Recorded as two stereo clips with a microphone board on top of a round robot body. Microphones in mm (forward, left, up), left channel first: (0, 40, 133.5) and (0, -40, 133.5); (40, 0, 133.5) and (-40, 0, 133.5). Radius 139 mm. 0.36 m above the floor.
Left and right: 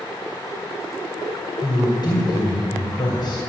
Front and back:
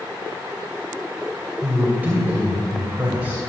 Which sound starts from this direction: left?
A woman speaking, at 1.6 s.